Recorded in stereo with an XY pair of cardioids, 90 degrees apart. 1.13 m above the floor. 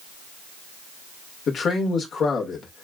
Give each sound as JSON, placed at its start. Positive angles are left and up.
{"t": 1.5, "sound": "a man speaking", "azimuth_deg": 65, "distance_m": 1.7}